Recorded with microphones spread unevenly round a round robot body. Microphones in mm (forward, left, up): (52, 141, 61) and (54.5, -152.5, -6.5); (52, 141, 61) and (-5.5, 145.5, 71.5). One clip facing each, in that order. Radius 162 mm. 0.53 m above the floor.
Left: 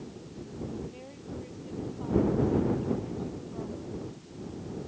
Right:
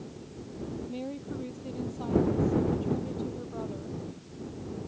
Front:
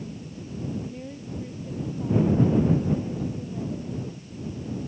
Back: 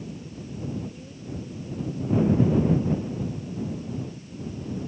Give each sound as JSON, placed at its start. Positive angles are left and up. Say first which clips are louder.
{"t": 0.9, "sound": "a woman speaking", "louder": "right 6 dB, front 2 dB", "azimuth_deg": -65}